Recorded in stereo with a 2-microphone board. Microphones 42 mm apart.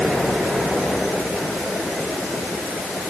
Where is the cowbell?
I don't hear a cowbell.